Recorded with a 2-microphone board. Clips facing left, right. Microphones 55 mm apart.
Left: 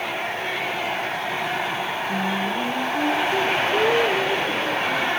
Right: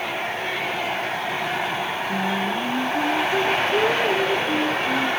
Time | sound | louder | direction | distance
2.1 | singing | right 1 dB | 5° left (ahead or behind) | 0.9 m